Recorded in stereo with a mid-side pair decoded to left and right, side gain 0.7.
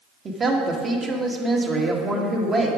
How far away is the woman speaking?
About 1.6 m.